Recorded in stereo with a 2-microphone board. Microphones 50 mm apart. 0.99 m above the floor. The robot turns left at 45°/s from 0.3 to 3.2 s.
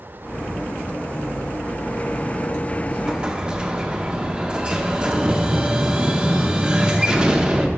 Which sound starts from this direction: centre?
An explosion, at 2.9 s.